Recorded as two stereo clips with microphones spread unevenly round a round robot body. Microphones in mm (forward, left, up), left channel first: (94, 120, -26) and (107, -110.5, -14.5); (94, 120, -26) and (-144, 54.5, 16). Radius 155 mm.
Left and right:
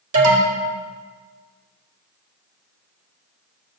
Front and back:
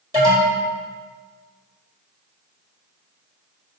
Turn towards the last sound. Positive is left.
turn(degrees=-85)